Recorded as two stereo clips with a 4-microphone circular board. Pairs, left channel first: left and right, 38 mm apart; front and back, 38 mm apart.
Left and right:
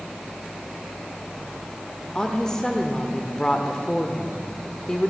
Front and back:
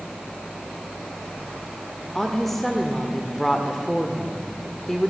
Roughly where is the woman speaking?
Left.